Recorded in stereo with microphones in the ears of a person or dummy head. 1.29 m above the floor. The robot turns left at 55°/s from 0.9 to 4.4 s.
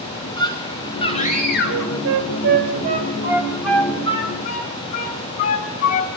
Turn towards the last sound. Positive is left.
turn(degrees=45)  # may be behind; listen again after turning